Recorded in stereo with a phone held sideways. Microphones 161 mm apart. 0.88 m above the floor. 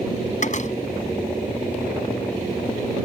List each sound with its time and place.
0.4 s a door slam: 50° left (ahead or behind)